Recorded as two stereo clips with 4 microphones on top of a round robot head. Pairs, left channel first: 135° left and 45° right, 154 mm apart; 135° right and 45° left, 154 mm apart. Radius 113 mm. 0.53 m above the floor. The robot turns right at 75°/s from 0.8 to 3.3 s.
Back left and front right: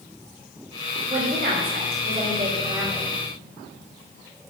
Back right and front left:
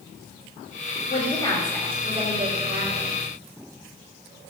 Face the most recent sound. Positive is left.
turn(degrees=55)